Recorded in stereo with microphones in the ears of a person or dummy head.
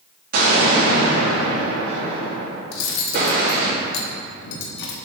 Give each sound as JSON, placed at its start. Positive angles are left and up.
{"t": 0.3, "sound": "an explosion", "side_deg": -50, "distance_m": 2.0}
{"t": 2.7, "sound": "cutlery clinking", "side_deg": 55, "distance_m": 0.9}